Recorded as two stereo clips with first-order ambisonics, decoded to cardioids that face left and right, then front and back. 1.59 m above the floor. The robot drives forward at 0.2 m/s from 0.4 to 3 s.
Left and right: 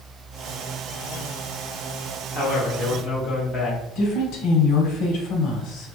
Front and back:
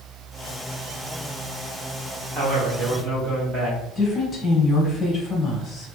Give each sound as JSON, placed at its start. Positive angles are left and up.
{"t": 2.4, "sound": "a man speaking", "azimuth_deg": 135, "distance_m": 1.5}
{"t": 4.0, "sound": "a woman speaking", "azimuth_deg": 75, "distance_m": 1.1}